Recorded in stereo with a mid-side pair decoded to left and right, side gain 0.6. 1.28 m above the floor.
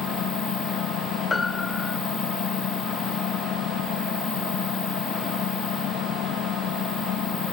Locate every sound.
0.0 s an engine running: 60° left
1.3 s a piano: 20° left